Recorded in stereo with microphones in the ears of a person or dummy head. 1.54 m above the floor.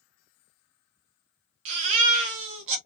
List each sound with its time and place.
1.6 s a baby crying: 30° right (ahead or behind), 0.7 m